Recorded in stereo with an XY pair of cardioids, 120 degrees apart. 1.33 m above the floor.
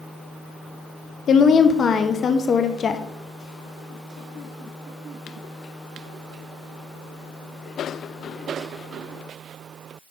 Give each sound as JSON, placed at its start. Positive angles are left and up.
{"t": 1.3, "sound": "a woman speaking", "azimuth_deg": 40, "distance_m": 0.7}